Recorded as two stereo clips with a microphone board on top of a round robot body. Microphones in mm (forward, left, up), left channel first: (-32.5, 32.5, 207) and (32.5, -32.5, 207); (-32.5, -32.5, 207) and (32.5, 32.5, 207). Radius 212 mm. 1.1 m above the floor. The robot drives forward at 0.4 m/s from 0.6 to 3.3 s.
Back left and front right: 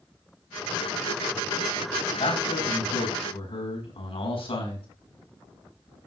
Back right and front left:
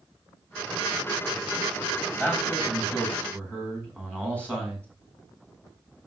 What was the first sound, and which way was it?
A man speaking, 145° left.